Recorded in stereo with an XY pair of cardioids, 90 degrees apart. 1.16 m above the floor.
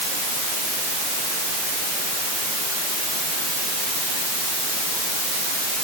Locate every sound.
Only background noise.